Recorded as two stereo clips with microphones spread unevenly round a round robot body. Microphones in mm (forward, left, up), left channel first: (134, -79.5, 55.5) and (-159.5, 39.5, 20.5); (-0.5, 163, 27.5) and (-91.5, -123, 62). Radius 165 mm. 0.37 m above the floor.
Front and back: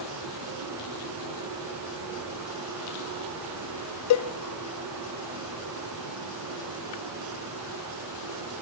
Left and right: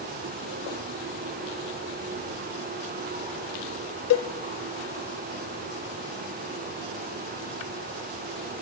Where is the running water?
170° right, 3.5 m.